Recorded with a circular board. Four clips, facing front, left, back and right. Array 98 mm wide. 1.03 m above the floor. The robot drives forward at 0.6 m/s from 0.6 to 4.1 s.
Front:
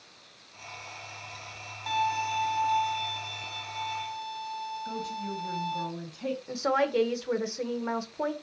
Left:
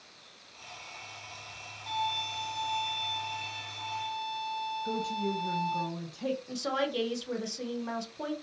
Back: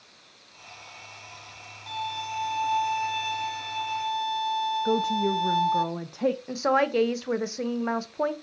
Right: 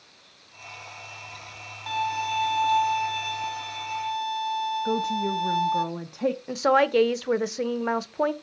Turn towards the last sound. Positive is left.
turn(degrees=-105)